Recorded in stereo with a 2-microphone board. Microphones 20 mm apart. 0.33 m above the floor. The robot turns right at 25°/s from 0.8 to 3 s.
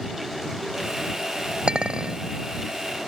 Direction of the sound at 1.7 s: 50° right (ahead or behind).